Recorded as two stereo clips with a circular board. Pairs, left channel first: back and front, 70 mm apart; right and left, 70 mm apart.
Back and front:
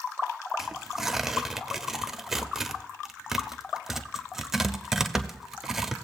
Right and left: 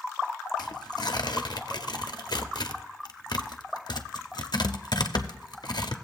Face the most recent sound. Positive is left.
turn(degrees=-85)